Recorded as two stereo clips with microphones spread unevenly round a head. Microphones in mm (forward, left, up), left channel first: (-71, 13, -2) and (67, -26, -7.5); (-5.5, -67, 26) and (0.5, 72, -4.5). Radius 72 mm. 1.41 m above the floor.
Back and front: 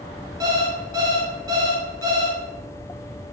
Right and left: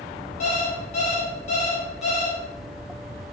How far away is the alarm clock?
About 0.7 m.